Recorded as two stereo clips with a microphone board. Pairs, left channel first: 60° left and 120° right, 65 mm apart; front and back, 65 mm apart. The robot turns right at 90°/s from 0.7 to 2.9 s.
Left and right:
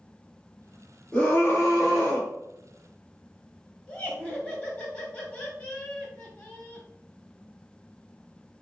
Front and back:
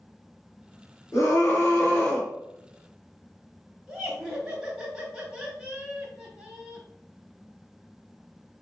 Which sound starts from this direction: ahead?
A scream, at 1.1 s.